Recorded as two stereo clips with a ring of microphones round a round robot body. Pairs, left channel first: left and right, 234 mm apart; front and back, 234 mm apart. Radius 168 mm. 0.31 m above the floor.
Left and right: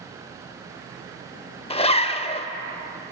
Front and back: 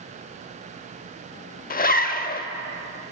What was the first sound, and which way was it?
A zipper, 35° left.